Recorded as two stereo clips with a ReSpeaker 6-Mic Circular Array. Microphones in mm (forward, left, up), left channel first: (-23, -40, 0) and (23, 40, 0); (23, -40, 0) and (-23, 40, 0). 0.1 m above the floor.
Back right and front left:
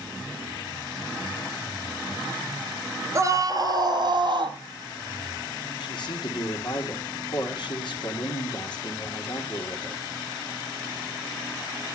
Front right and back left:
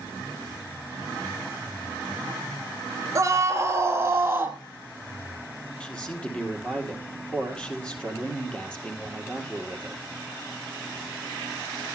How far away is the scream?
About 1.5 m.